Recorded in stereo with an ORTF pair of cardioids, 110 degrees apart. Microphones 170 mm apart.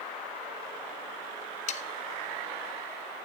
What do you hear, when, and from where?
1.7 s sawing: 45° left, 0.6 m